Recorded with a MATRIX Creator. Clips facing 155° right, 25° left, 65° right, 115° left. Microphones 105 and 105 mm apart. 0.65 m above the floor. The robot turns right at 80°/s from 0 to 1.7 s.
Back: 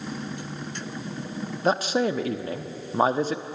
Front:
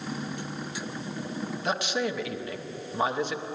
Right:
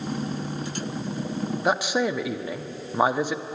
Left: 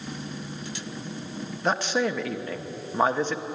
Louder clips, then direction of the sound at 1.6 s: Back 7 dB, right 1 dB; 150° right.